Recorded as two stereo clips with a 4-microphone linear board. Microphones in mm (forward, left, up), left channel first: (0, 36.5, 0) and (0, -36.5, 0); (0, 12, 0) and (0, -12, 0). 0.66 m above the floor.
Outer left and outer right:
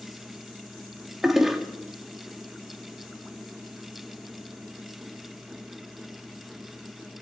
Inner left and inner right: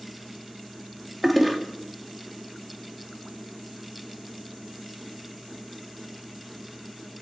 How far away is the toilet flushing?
About 1.4 m.